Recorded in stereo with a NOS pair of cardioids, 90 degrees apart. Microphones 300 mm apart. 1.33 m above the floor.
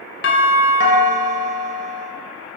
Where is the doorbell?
40° left, 0.7 m.